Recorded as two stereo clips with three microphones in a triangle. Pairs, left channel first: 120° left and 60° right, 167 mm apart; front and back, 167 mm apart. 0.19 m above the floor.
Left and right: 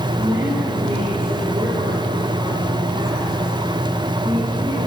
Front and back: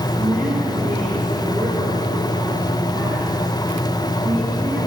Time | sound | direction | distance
0.2 | a woman speaking | 120° right | 7 m